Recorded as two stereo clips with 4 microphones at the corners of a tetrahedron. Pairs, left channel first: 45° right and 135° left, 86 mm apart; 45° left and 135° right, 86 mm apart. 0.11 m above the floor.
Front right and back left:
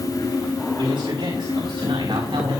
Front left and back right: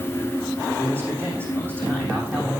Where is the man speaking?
165° left, 9 m; by 2.6 s 160° left, 8.5 m.